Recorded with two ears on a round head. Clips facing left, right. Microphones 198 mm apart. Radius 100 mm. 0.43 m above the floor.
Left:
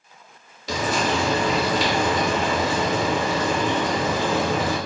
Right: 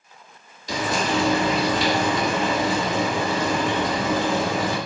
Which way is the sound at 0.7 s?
55° left (ahead or behind).